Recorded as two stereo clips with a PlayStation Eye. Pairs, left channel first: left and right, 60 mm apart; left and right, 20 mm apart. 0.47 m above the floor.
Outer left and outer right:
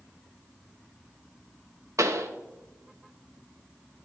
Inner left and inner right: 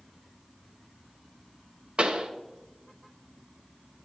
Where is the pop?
65° right (ahead or behind), 0.8 m.